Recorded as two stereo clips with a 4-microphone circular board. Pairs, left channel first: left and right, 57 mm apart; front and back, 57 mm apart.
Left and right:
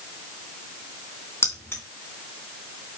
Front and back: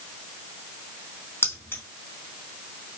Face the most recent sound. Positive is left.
turn(degrees=50)